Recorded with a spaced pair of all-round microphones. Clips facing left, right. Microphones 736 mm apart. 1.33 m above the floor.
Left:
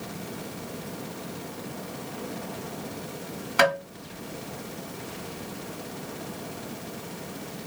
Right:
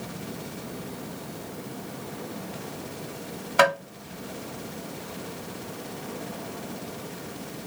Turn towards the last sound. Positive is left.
turn(degrees=-5)  # may be behind; listen again after turning